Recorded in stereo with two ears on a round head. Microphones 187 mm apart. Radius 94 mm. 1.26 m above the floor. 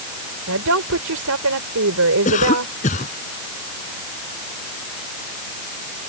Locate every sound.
0.5 s a woman speaking: 85° right
2.2 s a cough: 35° left (ahead or behind)